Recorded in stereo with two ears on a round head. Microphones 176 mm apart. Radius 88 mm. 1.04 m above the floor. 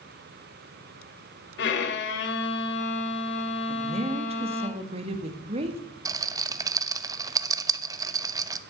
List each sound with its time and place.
1.6 s a violin: 65° left (ahead or behind), 1.8 m
3.7 s a woman speaking: 30° right (ahead or behind), 1.8 m
6.0 s a rattle: 20° right (ahead or behind), 0.6 m